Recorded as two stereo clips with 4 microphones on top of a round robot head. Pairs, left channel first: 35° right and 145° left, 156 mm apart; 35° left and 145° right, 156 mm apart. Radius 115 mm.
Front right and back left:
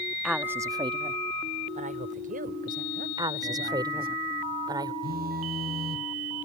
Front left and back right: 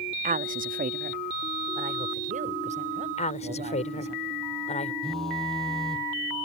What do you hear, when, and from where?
0.2 s a woman speaking: 125° right; by 4.2 s 170° left
3.2 s a woman speaking: 80° left
5.0 s a phone buzzing: 120° left